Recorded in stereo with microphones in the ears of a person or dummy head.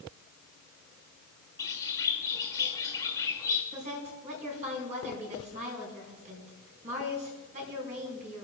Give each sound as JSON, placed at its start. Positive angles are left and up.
{"t": 1.6, "sound": "a bird", "side_deg": 25, "distance_m": 2.0}
{"t": 3.7, "sound": "a woman speaking", "side_deg": -35, "distance_m": 6.0}